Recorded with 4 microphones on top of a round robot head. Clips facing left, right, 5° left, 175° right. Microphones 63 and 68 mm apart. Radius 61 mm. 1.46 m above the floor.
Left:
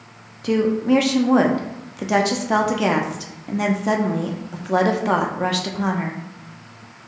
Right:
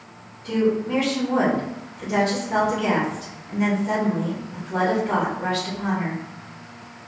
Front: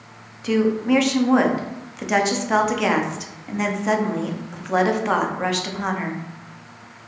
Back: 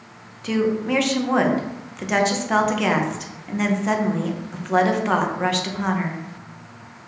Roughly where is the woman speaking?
Left.